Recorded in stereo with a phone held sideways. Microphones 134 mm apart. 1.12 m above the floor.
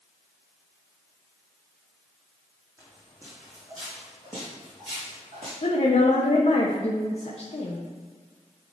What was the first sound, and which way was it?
Footsteps, 20° right (ahead or behind).